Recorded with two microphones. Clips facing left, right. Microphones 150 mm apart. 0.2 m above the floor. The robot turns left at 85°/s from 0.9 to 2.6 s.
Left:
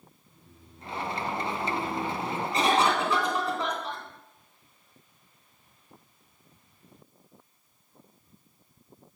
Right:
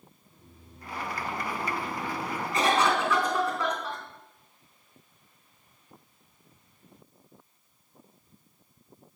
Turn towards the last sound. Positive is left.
turn(degrees=20)  # may be behind; listen again after turning